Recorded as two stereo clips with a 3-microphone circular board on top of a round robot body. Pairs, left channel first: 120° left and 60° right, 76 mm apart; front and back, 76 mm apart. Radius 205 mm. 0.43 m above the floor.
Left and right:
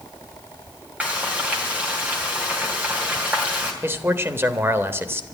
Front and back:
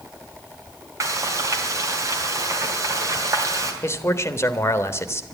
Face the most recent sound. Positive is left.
turn(degrees=-25)